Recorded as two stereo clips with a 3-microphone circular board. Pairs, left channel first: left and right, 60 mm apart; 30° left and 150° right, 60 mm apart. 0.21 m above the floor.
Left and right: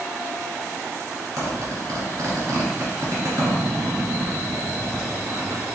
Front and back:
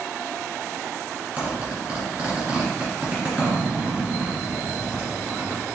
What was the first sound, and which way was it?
A zipper, 85° right.